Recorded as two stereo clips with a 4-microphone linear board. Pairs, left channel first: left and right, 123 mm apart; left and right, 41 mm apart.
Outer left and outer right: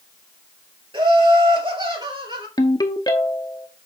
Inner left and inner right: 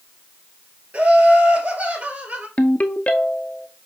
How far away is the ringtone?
About 0.9 m.